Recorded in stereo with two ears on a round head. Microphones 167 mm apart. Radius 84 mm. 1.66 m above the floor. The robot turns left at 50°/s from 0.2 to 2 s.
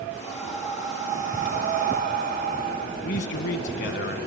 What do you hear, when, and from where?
0.2 s breathing: 5° left, 1.4 m; by 2.9 s 85° right, 1.4 m
3.0 s a man speaking: 65° left (ahead or behind), 1.7 m